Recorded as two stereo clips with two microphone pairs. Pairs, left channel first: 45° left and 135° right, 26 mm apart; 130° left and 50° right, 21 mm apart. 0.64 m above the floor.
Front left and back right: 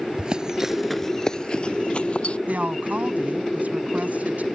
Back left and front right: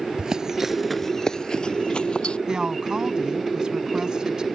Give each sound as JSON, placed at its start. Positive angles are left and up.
{"t": 0.2, "sound": "running footsteps", "azimuth_deg": -100}
{"t": 2.5, "sound": "a woman speaking", "azimuth_deg": -110}